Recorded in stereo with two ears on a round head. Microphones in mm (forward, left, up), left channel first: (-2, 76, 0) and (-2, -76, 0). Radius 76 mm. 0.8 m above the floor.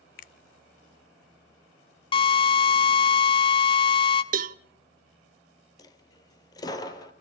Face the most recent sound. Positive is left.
turn(degrees=25)  # may be behind; listen again after turning